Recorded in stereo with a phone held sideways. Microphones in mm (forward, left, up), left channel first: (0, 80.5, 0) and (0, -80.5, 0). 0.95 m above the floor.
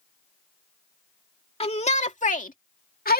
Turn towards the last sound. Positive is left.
turn(degrees=70)  # may be behind; listen again after turning